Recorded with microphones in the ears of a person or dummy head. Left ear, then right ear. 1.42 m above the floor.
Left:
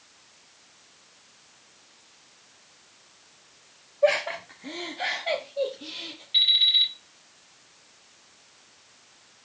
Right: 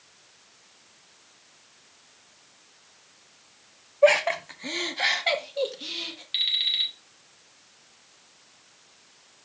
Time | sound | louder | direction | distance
4.0 | laughter | right 4 dB | 45° right (ahead or behind) | 0.8 m
6.3 | an alarm clock | left 5 dB | 50° right (ahead or behind) | 4 m